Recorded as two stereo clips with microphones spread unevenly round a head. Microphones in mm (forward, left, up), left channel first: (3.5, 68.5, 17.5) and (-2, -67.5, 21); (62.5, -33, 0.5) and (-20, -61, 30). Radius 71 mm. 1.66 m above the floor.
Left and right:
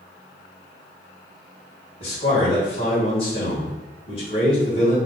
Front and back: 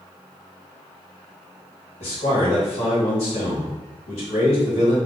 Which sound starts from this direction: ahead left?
A man speaking, at 2.0 s.